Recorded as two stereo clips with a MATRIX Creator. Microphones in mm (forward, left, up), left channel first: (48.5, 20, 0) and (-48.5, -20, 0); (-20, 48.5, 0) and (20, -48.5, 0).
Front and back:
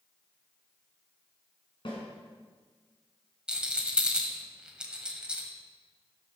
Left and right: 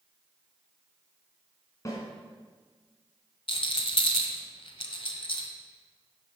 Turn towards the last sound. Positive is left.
turn(degrees=120)